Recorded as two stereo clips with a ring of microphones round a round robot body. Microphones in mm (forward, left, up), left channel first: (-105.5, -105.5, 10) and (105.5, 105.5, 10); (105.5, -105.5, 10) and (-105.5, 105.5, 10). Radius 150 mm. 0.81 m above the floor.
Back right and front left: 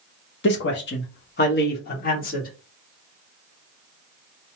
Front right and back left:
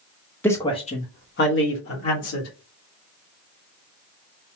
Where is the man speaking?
125° right, 1.0 m; by 2.5 s 75° right, 1.8 m.